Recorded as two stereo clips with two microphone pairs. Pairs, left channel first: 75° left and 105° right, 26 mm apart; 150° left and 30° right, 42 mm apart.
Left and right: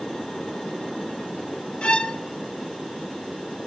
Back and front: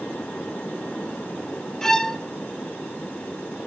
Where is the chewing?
No chewing in this recording.